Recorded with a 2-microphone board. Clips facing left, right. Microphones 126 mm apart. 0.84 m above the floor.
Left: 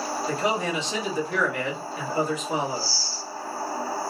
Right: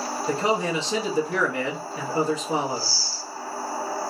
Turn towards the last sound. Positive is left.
turn(degrees=-35)  # may be behind; listen again after turning